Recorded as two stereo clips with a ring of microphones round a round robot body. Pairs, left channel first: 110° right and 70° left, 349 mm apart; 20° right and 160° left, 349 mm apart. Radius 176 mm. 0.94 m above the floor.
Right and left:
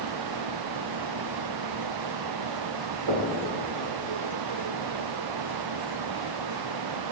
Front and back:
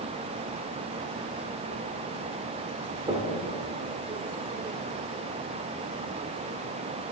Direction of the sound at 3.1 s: 80° left.